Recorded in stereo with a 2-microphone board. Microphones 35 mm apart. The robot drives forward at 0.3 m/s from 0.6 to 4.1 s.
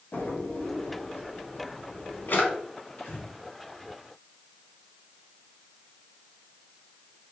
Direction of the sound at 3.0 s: 60° left (ahead or behind).